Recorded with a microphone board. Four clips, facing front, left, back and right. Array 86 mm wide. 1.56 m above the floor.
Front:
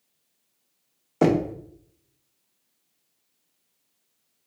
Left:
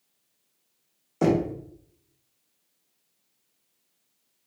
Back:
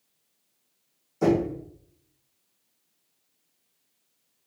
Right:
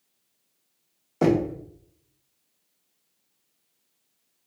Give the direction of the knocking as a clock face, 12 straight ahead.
12 o'clock.